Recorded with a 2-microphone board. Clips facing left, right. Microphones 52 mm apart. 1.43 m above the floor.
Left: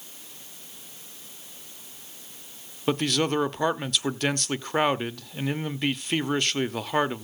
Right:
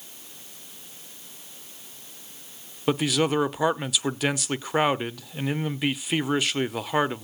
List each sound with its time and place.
2.9 s a man speaking: 5° right (ahead or behind), 0.6 m